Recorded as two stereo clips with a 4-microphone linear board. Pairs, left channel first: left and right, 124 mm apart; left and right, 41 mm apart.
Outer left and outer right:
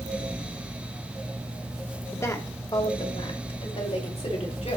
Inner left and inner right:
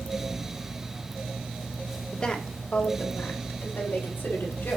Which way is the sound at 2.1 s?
20° left (ahead or behind).